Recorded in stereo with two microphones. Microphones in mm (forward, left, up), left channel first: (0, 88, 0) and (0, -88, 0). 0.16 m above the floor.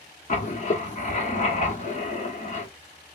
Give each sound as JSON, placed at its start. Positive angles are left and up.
{"t": 0.3, "sound": "writing", "side_deg": 45, "distance_m": 1.0}